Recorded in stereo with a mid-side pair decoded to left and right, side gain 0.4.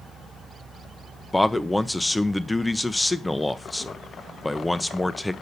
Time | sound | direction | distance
1.3 | a man speaking | 15° left | 0.8 m